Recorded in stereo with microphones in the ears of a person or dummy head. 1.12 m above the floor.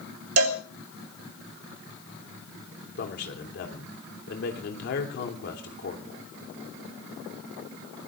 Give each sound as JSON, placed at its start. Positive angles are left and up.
{"t": 0.4, "sound": "a cowbell", "side_deg": -80, "distance_m": 2.5}
{"t": 3.0, "sound": "a man speaking", "side_deg": 60, "distance_m": 3.0}